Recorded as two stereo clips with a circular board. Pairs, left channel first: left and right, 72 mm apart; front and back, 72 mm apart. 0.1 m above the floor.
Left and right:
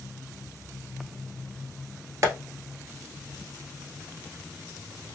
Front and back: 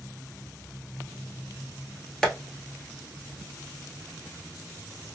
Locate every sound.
2.2 s tapping: 80° right, 1.2 m